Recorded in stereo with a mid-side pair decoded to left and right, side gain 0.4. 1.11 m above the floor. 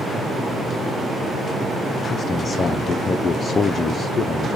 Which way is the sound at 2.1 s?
50° left.